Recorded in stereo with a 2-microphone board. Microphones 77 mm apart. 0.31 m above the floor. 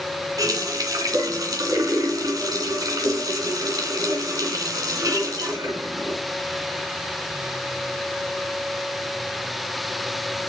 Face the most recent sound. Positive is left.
turn(degrees=-50)  # may be behind; listen again after turning